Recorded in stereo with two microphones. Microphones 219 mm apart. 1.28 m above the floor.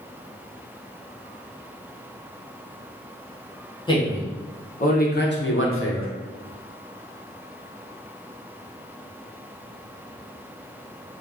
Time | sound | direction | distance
3.9 | a man speaking | 20° left (ahead or behind) | 1.4 m